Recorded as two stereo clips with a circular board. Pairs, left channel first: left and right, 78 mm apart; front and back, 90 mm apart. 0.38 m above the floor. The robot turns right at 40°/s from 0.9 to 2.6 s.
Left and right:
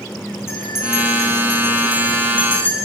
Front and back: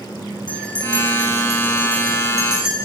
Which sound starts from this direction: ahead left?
A bell, at 0.5 s.